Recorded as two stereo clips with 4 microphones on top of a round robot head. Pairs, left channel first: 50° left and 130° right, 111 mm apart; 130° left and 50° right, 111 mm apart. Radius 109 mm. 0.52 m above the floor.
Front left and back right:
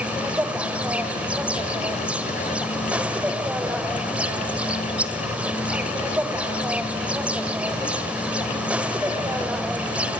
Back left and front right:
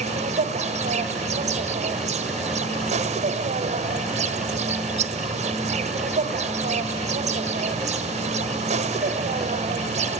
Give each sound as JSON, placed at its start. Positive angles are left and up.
{"t": 0.0, "sound": "an insect", "azimuth_deg": -50, "distance_m": 1.3}